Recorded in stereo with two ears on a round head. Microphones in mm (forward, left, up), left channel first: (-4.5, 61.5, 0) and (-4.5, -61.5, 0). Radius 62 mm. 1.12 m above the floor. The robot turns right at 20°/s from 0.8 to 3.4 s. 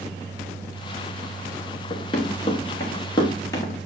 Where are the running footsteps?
45° left (ahead or behind), 5 m; by 3.9 s 30° left (ahead or behind), 4.5 m.